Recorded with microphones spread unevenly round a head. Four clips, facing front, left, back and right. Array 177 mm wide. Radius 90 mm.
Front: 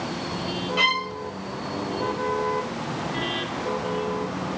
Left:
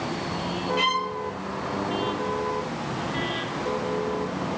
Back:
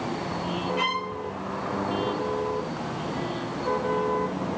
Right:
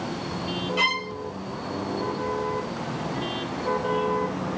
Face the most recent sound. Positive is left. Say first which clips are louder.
# left 3 dB, front 2 dB
turn(degrees=-15)